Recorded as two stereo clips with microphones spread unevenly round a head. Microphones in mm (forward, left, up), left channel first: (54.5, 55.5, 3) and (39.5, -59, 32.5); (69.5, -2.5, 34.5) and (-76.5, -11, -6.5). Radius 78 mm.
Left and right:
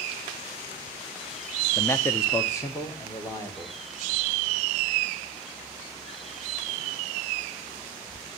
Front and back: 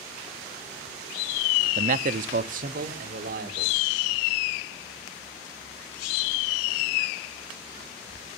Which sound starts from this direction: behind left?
A man speaking, at 1.8 s.